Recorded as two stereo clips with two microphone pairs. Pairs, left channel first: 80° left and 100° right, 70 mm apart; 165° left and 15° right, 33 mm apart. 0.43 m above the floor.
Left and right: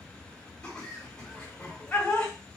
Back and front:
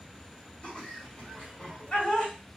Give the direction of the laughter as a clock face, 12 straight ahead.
7 o'clock.